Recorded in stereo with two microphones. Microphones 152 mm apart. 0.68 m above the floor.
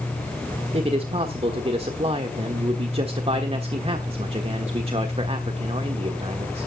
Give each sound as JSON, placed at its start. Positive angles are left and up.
{"t": 0.7, "sound": "a man speaking", "side_deg": -40, "distance_m": 1.3}